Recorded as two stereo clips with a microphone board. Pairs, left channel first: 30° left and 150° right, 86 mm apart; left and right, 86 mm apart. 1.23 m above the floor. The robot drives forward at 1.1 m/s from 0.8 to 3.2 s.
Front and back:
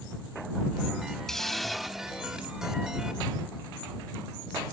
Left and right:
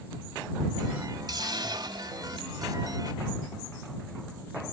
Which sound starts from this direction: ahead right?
A hiss, at 1.3 s.